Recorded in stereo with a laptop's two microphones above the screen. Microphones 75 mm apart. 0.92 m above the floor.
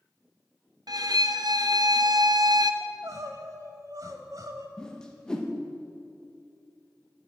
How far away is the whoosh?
About 0.8 m.